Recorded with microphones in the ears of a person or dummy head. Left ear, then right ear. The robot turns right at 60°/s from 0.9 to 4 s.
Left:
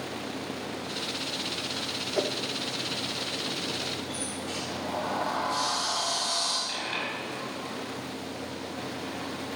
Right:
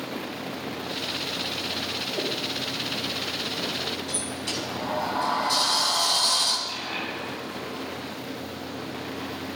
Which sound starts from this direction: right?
A sliding door, at 4.1 s.